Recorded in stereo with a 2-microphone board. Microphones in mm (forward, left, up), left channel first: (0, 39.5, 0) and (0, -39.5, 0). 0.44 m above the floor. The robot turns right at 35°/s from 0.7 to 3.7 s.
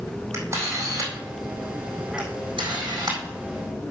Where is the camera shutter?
35° right (ahead or behind), 4 m; by 3.2 s 60° right (ahead or behind), 4 m.